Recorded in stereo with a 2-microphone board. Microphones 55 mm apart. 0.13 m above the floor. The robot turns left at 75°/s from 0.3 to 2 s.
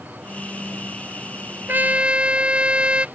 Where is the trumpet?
40° right (ahead or behind); by 3.1 s 20° right (ahead or behind).